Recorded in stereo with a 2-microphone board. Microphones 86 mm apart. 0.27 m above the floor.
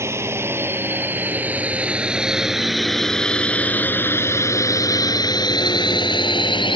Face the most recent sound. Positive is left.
turn(degrees=70)  # may be behind; listen again after turning